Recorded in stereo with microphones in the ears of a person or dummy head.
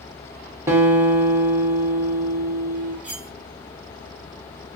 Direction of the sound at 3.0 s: 10° right (ahead or behind).